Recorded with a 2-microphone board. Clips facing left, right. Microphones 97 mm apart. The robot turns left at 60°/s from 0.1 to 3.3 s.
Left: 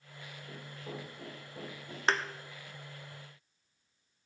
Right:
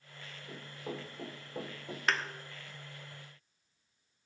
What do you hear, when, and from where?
0.5 s running footsteps: 5° right (ahead or behind), 6 m; by 2.0 s 70° right (ahead or behind), 6.5 m
2.1 s a thud: 30° left (ahead or behind), 0.7 m; by 2.2 s 35° left (ahead or behind), 0.7 m